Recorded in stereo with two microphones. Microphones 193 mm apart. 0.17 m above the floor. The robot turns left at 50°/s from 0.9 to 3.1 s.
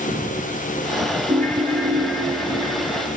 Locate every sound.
1.3 s a ringtone: 30° right, 3 m; by 3.1 s 120° right, 3 m